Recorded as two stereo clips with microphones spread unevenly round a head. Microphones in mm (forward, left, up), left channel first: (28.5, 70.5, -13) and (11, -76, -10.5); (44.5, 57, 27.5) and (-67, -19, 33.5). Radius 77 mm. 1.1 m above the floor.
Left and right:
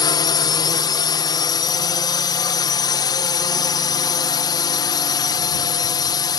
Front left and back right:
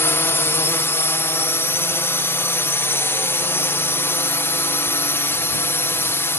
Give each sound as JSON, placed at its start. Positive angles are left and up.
{"t": 0.0, "sound": "a drone", "azimuth_deg": 80}